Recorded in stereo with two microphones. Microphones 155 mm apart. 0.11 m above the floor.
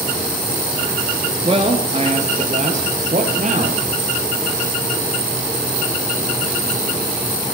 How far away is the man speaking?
About 2 m.